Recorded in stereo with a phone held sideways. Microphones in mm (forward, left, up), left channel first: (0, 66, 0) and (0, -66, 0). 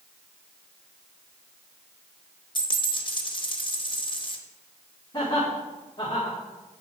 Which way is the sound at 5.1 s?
30° left (ahead or behind).